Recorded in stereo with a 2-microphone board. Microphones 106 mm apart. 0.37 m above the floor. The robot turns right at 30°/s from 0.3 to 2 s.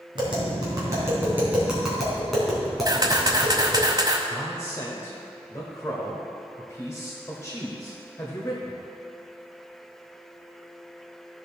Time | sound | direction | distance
0.1 | tapping | 50° right (ahead or behind) | 3 m
2.9 | a camera shutter | 40° right (ahead or behind) | 1.1 m
4.3 | a man speaking | 30° left (ahead or behind) | 1.4 m